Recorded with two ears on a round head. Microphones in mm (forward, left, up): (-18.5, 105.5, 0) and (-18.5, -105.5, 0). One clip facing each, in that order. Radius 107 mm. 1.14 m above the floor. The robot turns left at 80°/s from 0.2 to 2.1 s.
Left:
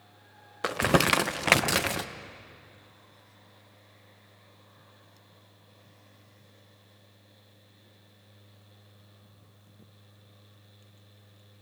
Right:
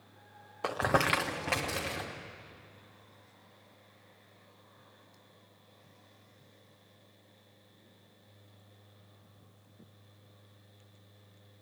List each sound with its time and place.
0.6 s crumpling: 20° left (ahead or behind), 0.6 m; by 2.1 s 45° left (ahead or behind), 0.6 m